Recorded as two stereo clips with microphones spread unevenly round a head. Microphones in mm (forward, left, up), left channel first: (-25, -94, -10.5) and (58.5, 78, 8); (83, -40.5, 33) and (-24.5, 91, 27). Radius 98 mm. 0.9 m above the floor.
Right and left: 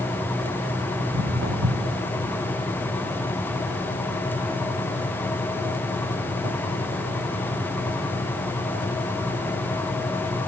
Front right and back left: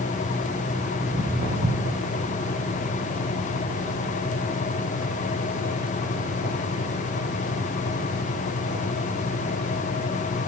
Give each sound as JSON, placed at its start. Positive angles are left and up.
{"t": 1.0, "sound": "footsteps", "azimuth_deg": 90, "distance_m": 5.5}